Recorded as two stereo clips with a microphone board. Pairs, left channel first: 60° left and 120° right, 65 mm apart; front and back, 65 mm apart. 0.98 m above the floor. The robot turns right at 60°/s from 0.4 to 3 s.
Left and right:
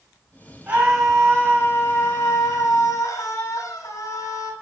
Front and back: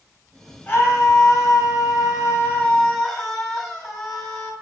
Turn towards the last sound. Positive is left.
turn(degrees=85)